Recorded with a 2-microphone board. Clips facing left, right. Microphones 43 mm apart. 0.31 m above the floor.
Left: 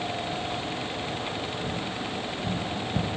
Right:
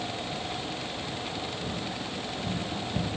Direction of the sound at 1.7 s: 25° left (ahead or behind).